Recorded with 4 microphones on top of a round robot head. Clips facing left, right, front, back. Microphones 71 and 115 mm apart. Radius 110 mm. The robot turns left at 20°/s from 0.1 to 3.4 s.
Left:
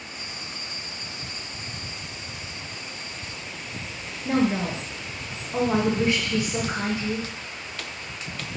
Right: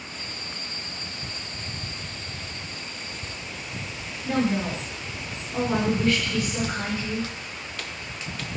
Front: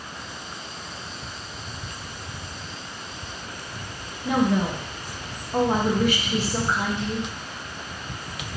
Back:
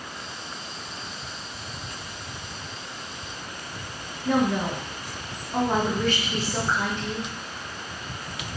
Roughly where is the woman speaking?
Ahead left.